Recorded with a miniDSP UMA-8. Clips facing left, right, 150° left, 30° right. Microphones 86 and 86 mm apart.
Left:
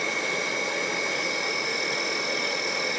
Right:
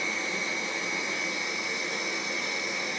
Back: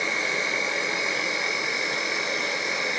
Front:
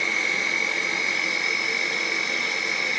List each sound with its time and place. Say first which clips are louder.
0.0 s an insect: left 4 dB, even; 80° left, 0.7 m